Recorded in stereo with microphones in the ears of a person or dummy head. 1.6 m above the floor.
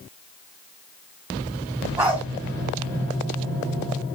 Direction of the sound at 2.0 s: 10° right (ahead or behind).